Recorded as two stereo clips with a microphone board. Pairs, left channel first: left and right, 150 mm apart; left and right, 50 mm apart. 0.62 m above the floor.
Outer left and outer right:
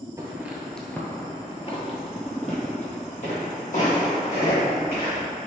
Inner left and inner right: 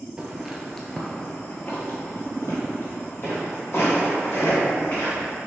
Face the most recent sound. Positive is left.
turn(degrees=60)  # may be behind; listen again after turning